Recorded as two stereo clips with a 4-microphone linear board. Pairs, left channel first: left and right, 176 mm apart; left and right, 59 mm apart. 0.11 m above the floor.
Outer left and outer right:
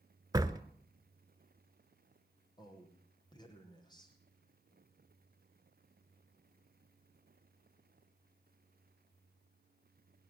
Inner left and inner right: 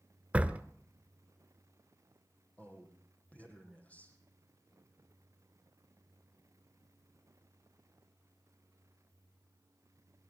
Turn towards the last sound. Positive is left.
turn(degrees=20)  # may be behind; listen again after turning